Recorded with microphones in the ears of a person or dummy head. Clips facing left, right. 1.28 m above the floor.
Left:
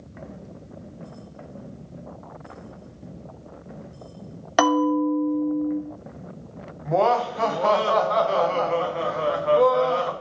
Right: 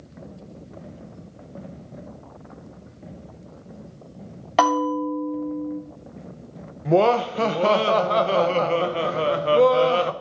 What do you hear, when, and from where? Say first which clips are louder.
4.6 s a bell: left 2 dB; 20° left (ahead or behind), 1.4 m
6.8 s laughter: right 3 dB; 45° right (ahead or behind), 0.7 m